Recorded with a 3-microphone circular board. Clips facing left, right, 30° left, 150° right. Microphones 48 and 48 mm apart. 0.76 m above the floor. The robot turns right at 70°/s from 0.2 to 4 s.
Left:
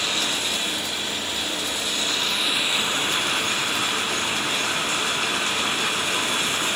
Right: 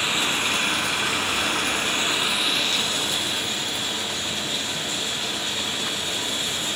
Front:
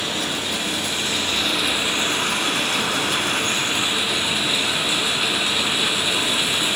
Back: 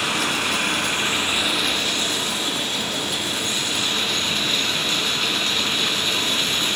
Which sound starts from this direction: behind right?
Running water, at 0.0 s.